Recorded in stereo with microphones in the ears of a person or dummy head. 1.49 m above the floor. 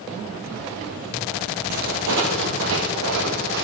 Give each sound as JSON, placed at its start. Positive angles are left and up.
{"t": 1.7, "sound": "footsteps", "side_deg": -50, "distance_m": 2.5}